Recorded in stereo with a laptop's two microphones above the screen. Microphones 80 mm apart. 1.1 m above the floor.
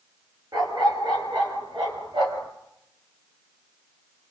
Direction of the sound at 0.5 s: 60° right (ahead or behind).